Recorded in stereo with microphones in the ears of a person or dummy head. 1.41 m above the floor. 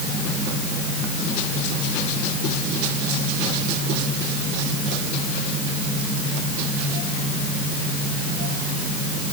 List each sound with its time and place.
Only background noise.